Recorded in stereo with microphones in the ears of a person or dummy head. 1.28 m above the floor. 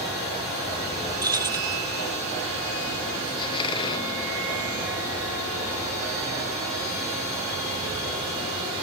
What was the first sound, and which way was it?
Keys jangling, 20° right (ahead or behind).